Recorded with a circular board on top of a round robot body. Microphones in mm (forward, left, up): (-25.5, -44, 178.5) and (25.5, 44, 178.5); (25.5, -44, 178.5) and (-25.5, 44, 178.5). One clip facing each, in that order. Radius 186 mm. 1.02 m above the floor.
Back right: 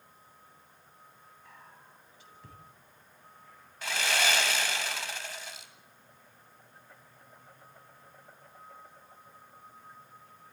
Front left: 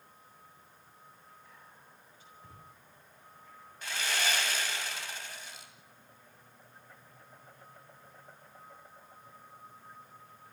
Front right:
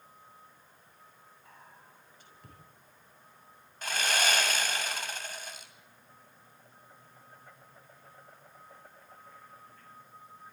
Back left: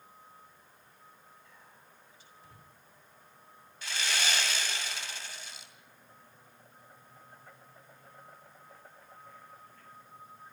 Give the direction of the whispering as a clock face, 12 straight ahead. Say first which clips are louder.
Back right 2 dB, front right 3 dB; 3 o'clock.